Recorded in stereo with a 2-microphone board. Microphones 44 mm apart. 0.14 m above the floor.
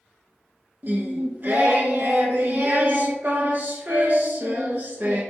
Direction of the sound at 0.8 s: 50° right (ahead or behind).